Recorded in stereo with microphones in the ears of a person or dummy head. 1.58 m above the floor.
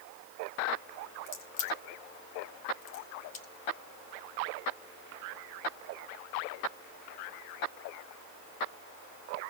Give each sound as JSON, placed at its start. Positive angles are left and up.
{"t": 1.3, "sound": "a crack", "side_deg": 45, "distance_m": 2.0}